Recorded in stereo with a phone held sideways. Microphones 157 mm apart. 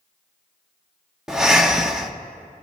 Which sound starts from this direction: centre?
Breathing, at 1.3 s.